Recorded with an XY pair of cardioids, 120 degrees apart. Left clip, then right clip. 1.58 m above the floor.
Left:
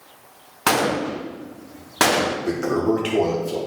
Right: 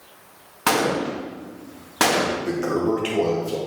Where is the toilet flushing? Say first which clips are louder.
Left 1 dB; 5° left, 1.5 m.